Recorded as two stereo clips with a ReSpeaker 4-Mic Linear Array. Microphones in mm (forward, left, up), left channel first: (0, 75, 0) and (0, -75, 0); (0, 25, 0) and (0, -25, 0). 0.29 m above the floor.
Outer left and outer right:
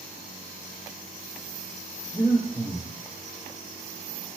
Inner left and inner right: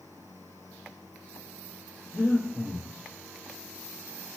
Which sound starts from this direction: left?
Breathing, at 2.1 s.